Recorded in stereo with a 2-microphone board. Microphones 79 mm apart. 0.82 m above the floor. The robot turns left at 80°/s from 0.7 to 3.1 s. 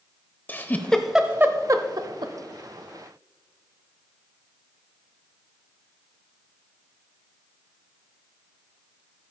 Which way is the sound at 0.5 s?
25° left (ahead or behind).